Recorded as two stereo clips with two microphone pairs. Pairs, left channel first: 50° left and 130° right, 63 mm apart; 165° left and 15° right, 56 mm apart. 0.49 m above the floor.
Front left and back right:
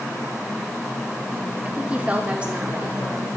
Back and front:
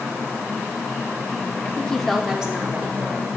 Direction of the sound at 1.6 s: Straight behind.